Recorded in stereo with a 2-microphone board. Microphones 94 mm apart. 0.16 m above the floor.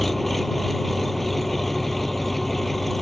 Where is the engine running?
Centre (ahead or behind).